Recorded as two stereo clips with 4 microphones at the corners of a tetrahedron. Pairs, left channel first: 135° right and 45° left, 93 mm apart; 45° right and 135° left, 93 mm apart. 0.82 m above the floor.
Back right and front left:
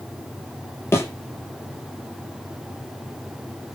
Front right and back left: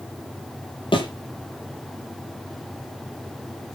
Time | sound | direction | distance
0.9 | a thud | 75° right | 7 m